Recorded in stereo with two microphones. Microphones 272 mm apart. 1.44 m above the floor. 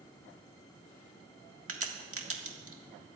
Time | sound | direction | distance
1.7 | a crack | 60° right (ahead or behind) | 1.5 m